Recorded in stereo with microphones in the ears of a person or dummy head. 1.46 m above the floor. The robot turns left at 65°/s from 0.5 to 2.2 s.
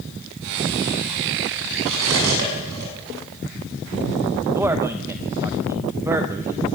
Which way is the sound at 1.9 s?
75° right (ahead or behind).